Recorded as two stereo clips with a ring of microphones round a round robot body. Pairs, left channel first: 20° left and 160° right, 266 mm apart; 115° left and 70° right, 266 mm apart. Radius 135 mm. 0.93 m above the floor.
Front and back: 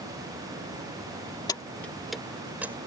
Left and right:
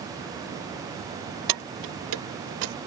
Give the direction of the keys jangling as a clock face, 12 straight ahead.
2 o'clock.